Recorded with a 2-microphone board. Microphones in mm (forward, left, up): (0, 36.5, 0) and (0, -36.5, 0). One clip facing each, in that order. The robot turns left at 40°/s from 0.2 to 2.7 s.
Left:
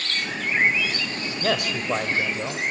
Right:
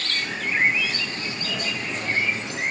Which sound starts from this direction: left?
A man speaking, at 1.4 s.